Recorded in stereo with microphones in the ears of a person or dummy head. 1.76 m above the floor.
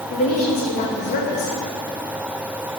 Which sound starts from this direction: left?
A woman speaking, at 0.1 s.